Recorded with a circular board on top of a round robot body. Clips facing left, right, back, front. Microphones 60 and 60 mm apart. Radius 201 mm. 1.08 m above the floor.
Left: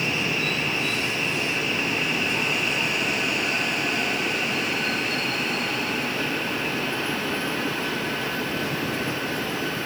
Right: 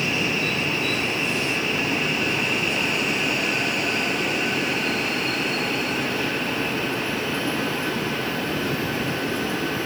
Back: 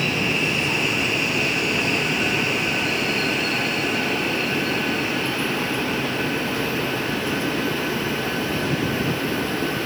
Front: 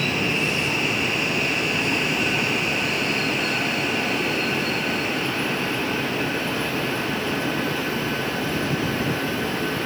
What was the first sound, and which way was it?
Only background noise.